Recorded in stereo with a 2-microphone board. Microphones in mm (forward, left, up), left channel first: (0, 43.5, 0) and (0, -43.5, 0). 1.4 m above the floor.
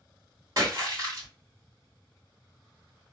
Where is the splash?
40° right (ahead or behind), 2.5 m.